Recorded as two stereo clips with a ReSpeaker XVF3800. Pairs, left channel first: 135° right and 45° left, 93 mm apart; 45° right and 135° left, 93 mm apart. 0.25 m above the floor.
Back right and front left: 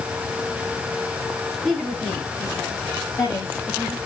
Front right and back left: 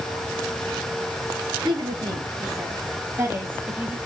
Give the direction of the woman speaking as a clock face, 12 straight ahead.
7 o'clock.